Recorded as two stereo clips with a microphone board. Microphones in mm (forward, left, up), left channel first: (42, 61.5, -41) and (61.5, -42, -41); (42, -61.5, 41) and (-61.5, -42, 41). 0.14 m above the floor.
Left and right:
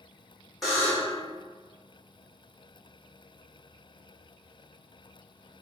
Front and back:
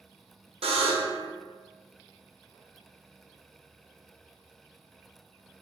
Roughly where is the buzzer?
Behind.